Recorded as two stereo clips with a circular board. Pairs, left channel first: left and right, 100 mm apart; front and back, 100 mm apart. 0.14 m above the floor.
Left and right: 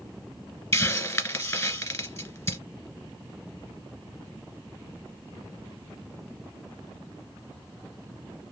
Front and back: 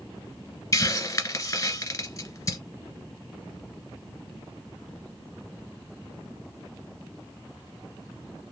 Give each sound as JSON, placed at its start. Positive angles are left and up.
{"t": 0.7, "sound": "a hiss", "azimuth_deg": 40, "distance_m": 1.5}